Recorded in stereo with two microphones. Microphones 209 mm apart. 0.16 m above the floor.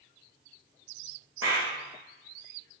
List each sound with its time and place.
1.4 s a clap: 80° right, 7.5 m